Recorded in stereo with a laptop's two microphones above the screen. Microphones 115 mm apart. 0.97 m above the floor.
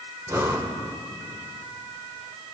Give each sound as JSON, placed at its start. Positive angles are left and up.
{"t": 0.3, "sound": "breathing", "side_deg": -25, "distance_m": 0.9}